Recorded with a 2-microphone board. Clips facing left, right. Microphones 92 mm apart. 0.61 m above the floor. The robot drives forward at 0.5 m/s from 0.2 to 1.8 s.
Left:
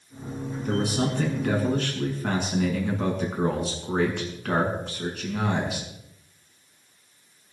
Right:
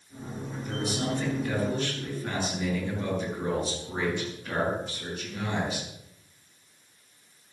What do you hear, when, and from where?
0.7 s a man speaking: 75° left (ahead or behind), 7 m; by 5.9 s 70° left (ahead or behind), 7 m